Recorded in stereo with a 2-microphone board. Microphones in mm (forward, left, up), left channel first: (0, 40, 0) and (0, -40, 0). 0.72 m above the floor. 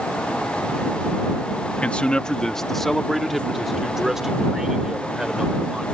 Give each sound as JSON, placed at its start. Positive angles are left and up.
{"t": 1.8, "sound": "a man speaking", "side_deg": 15}